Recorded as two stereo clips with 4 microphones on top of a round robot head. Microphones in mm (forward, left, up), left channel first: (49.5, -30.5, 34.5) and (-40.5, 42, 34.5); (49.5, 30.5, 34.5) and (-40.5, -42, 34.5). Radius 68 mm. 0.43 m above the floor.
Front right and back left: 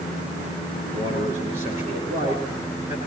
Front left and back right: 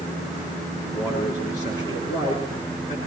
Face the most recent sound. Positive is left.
turn(degrees=95)